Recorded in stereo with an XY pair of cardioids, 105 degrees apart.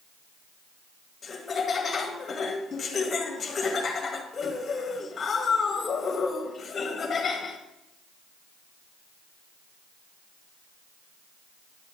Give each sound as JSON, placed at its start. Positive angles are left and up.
{"t": 1.2, "sound": "laughter", "azimuth_deg": 35, "distance_m": 1.9}